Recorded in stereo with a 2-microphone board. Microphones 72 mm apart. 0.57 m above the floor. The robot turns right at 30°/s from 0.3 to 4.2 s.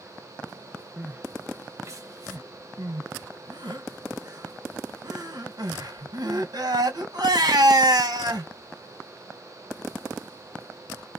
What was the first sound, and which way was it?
Crying, 15° right (ahead or behind).